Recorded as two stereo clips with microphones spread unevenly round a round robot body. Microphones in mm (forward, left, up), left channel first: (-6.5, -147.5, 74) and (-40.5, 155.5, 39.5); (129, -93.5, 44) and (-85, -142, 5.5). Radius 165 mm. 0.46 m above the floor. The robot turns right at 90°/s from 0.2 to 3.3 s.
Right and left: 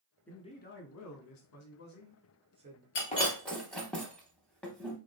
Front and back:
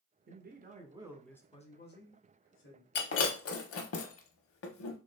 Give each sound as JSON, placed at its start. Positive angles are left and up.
{"t": 0.3, "sound": "a man speaking", "azimuth_deg": -175, "distance_m": 1.0}
{"t": 3.0, "sound": "breaking glass", "azimuth_deg": -30, "distance_m": 0.6}